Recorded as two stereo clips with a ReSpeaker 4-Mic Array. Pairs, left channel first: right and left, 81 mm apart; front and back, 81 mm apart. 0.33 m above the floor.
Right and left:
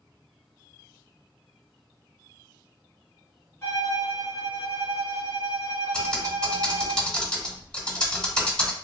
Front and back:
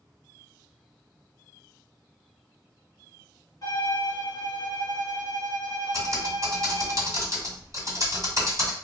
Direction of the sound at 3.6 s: 30° right.